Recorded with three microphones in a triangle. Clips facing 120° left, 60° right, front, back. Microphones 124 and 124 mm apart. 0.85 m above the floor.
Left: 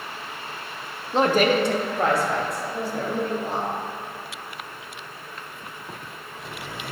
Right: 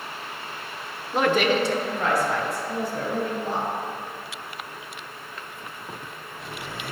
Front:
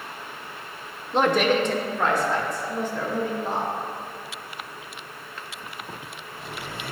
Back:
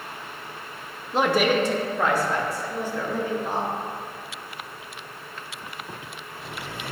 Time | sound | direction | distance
1.1 | a woman speaking | 95° left | 0.6 m